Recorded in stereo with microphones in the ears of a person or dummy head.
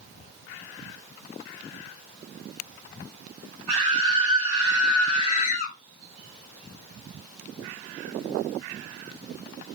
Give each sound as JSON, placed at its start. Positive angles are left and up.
{"t": 3.7, "sound": "a scream", "side_deg": -35, "distance_m": 1.5}